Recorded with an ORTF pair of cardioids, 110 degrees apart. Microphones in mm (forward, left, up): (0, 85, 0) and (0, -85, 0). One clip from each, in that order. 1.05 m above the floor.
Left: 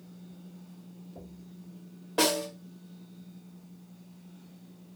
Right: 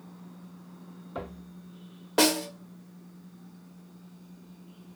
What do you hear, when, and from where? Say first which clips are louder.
2.2 s a snare drum: right 2 dB; 30° right, 0.9 m